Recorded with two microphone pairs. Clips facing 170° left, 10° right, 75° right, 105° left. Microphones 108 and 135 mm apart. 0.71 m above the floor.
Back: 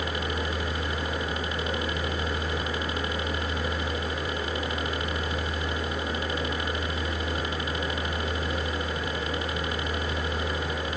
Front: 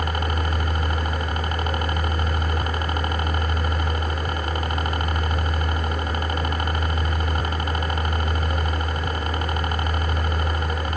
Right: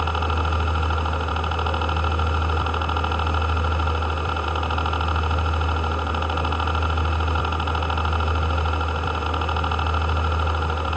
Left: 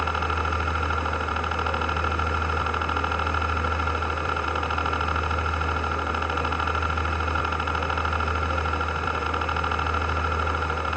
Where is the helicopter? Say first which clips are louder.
Front 4 dB, right 2 dB; 10° right.